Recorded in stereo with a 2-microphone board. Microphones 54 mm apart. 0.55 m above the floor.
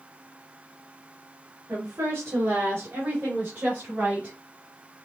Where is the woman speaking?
60° right (ahead or behind), 2.5 m; by 4.3 s 30° right (ahead or behind), 3.5 m.